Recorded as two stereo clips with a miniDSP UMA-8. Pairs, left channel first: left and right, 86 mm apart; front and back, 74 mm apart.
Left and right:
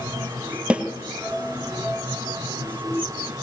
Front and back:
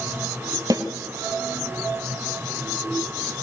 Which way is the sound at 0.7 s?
165° right.